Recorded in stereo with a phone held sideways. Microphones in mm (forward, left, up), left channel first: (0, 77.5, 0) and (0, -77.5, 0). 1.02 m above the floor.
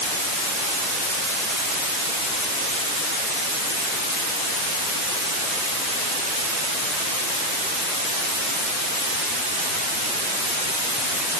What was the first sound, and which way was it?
Only background noise.